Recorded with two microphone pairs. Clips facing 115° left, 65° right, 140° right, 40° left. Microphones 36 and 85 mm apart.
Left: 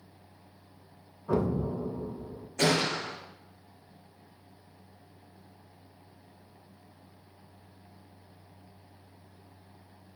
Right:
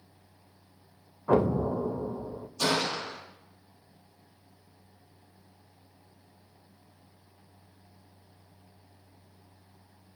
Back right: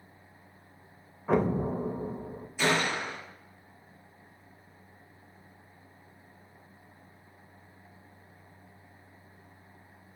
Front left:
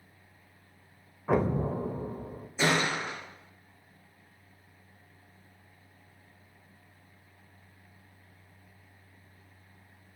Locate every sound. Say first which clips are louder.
1.3 s an explosion: right 4 dB, back right 1 dB; 45° right, 0.6 m
2.6 s a gunshot: left 2 dB, even; 100° left, 4.5 m